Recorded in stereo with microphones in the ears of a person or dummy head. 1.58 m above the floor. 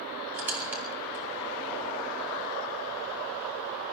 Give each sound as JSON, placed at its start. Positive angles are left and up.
{"t": 0.3, "sound": "a squeak", "side_deg": -5, "distance_m": 2.5}